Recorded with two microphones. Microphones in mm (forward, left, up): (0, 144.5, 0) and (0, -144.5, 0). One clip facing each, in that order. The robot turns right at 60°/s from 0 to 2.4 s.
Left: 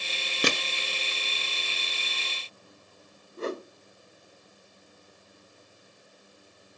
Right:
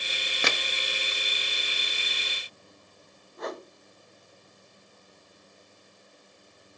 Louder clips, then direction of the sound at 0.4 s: Left 4 dB; 40° left (ahead or behind).